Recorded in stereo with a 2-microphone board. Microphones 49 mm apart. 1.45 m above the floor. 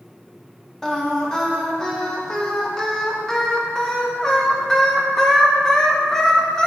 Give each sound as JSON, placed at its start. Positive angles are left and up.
{"t": 0.8, "sound": "singing", "side_deg": 10, "distance_m": 1.0}